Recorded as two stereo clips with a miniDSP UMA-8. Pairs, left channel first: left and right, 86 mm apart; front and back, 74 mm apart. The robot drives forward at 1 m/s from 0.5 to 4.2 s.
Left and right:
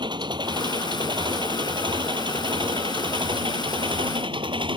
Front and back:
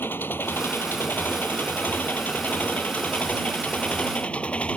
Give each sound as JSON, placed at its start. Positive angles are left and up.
{"t": 0.0, "sound": "an engine running", "azimuth_deg": -60}